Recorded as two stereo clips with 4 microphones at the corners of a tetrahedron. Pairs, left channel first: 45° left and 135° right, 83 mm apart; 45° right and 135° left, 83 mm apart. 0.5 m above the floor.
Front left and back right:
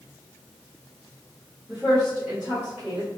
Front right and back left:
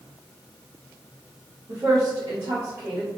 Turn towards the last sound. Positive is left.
turn(degrees=160)